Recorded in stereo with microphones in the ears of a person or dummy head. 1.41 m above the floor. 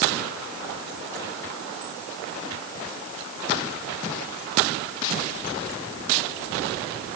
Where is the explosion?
I don't hear an explosion.